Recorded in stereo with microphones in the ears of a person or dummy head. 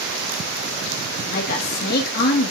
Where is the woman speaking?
50° left (ahead or behind), 2.5 m.